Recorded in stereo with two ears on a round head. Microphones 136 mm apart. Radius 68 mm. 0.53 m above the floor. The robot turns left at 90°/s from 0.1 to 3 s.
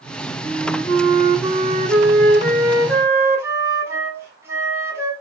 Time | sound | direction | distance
0.4 | a flute | 70° left | 5.5 m